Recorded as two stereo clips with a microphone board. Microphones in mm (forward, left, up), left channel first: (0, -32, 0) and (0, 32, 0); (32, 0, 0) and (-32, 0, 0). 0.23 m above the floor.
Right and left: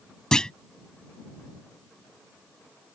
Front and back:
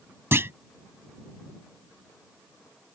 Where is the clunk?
160° right.